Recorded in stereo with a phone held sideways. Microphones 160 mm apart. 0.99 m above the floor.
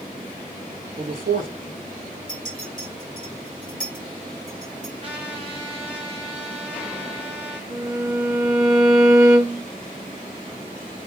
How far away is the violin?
About 1.2 m.